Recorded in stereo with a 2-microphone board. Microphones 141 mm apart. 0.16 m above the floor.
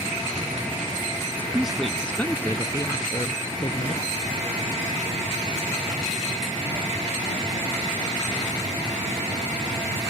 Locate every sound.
1.4 s a woman speaking: 15° right (ahead or behind); by 4.1 s 45° left (ahead or behind)